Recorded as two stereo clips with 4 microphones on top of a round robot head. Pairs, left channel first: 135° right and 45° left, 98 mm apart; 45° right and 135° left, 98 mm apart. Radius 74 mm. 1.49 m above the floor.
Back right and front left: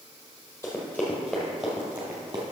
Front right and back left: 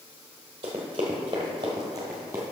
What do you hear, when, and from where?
0.6 s running footsteps: 165° left, 1.8 m; by 2.4 s 80° left, 1.6 m